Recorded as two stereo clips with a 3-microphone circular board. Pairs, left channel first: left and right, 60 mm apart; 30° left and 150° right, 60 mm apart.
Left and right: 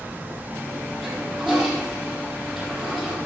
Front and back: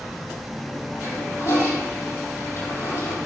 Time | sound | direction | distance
1.0 | a toilet flushing | straight ahead | 4 m